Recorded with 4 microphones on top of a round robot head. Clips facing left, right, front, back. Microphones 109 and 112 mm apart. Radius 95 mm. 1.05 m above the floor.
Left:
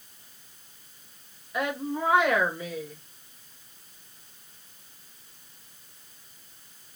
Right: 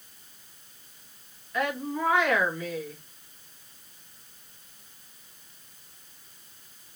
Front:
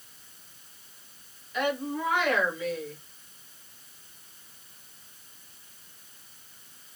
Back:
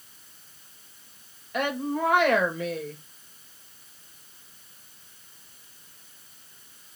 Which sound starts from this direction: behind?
A woman speaking, at 1.5 s.